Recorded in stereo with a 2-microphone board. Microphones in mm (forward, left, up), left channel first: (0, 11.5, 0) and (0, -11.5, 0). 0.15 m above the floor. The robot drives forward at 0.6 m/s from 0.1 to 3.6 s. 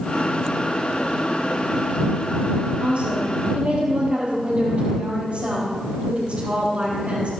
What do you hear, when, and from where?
2.8 s a woman speaking: 55° right (ahead or behind), 4.5 m; by 7.3 s 50° right (ahead or behind), 4.5 m